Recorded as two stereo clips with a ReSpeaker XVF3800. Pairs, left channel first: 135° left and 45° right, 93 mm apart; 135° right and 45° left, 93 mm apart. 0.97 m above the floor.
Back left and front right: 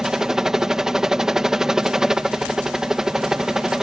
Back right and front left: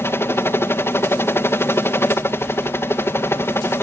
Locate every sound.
0.0 s a helicopter: 125° right